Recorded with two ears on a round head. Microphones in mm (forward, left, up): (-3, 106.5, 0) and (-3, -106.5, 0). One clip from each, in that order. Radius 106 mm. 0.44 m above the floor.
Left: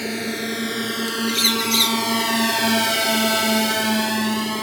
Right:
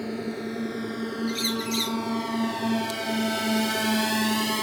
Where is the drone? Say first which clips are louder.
Left 7 dB; 70° left (ahead or behind); by 4.6 s 15° right (ahead or behind).